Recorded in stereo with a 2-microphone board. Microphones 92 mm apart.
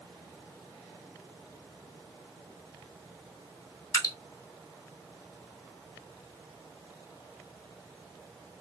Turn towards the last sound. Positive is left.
turn(degrees=40)  # may be behind; listen again after turning